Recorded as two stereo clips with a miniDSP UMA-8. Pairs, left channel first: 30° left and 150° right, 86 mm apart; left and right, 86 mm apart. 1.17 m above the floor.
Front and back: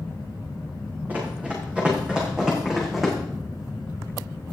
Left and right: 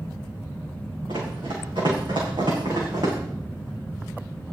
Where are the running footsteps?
80° right, 6 m; by 3.2 s 60° right, 5 m.